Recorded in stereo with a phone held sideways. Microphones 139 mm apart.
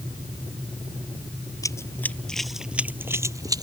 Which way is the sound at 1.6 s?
25° left (ahead or behind).